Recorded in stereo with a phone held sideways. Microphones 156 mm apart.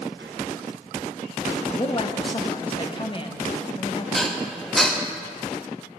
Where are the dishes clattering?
Centre (ahead or behind), 0.6 m.